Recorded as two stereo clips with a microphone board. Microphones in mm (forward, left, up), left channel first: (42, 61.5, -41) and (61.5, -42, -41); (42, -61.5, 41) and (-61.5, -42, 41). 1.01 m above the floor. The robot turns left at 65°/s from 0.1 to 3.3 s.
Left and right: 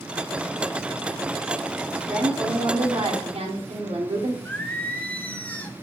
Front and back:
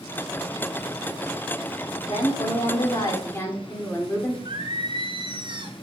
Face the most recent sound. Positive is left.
turn(degrees=170)